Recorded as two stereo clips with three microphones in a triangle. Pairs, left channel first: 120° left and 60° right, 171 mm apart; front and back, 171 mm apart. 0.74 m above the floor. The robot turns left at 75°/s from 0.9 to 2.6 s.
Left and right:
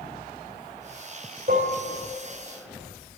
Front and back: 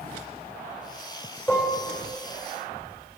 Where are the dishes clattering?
80° right, 1.5 m; by 1.8 s 105° right, 1.5 m.